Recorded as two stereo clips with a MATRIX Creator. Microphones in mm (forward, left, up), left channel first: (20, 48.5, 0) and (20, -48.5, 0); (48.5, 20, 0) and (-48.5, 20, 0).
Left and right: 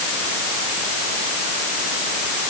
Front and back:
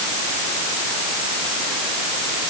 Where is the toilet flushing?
I don't hear a toilet flushing.